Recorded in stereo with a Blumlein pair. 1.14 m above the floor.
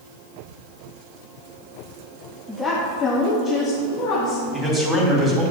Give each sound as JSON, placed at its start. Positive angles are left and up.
{"t": 2.5, "sound": "a woman speaking", "azimuth_deg": 5, "distance_m": 1.2}
{"t": 4.5, "sound": "a man speaking", "azimuth_deg": -5, "distance_m": 3.0}